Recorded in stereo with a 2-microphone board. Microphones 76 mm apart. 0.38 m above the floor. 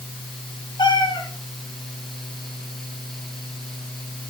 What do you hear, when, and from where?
0.8 s a cat meowing: 80° left, 4 m